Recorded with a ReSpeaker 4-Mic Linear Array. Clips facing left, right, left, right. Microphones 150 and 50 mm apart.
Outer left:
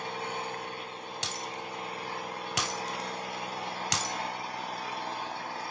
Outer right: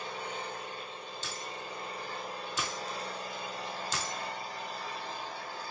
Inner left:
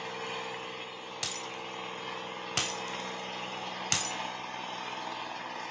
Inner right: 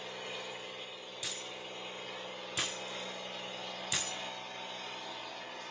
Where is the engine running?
70° left (ahead or behind), 3 m.